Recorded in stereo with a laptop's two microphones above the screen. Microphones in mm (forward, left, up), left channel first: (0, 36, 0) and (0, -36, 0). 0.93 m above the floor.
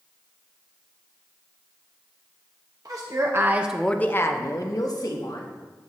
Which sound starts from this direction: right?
A woman speaking, at 2.9 s.